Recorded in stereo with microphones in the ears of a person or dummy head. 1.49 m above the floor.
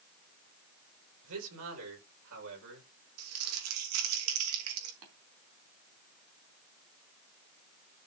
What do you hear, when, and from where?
1.2 s a man speaking: 85° right, 6.5 m; by 2.9 s 65° right (ahead or behind), 6 m
3.2 s crumpling: 80° right, 3 m
5.0 s tapping: 70° right (ahead or behind), 3.5 m